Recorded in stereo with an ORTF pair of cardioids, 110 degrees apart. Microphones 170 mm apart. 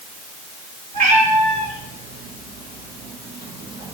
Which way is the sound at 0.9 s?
55° right.